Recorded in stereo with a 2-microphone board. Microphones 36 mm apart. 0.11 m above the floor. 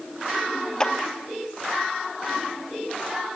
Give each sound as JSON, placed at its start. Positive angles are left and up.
{"t": 0.8, "sound": "a clap", "side_deg": 20, "distance_m": 2.0}